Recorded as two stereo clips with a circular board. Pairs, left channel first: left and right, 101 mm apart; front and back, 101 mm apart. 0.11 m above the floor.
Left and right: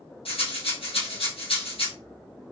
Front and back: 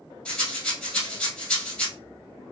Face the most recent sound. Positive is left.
turn(degrees=85)